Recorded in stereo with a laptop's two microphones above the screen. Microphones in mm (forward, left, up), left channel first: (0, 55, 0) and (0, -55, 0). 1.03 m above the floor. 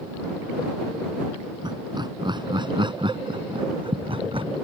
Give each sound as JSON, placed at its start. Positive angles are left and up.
{"t": 1.6, "sound": "laughter", "side_deg": -40}